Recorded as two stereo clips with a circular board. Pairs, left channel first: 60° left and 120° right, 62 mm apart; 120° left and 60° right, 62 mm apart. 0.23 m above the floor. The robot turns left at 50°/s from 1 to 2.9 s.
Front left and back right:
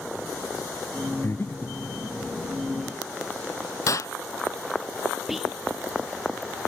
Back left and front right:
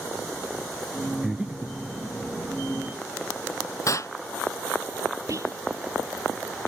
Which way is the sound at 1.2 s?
20° left.